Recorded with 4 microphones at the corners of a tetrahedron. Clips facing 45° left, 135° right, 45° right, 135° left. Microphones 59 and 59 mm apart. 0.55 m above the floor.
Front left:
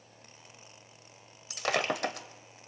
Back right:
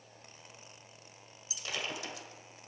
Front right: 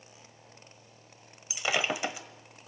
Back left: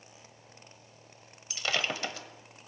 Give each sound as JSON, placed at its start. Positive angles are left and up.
{"t": 1.5, "sound": "breaking glass", "azimuth_deg": 30, "distance_m": 1.4}